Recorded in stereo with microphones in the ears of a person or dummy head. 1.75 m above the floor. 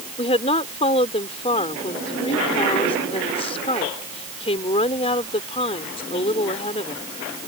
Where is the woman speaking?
40° left (ahead or behind).